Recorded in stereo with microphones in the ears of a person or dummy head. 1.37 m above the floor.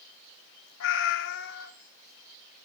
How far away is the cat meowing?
About 3 m.